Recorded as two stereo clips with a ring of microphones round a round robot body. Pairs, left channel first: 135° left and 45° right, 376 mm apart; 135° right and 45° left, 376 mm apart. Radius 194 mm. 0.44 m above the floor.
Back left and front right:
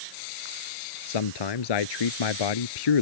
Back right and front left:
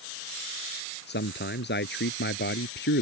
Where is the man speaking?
160° left.